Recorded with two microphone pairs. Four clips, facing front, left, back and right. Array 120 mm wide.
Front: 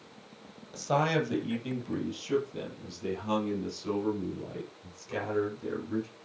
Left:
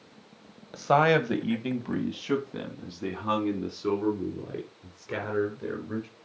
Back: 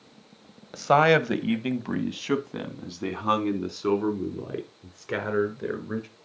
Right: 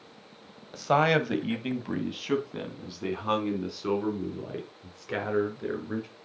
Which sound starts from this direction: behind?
A man speaking, at 0.7 s.